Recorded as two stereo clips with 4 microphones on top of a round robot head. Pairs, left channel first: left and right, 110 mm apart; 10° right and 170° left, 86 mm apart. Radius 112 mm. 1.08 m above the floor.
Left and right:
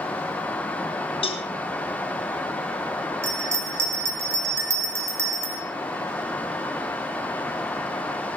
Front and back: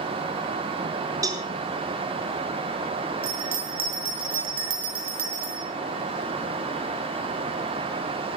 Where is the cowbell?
125° left, 4.5 m.